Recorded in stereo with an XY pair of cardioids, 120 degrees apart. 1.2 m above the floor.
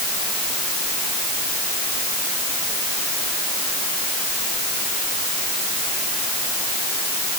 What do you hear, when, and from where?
Only background noise.